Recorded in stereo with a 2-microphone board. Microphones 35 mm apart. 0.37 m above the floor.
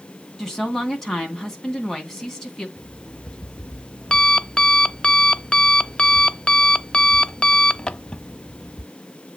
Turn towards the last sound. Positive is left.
turn(degrees=25)  # may be behind; listen again after turning